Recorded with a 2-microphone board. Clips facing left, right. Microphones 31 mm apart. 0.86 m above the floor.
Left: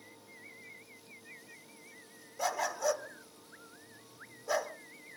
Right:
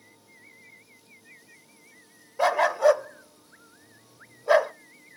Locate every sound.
2.4 s a dog barking: 45° right (ahead or behind), 0.6 m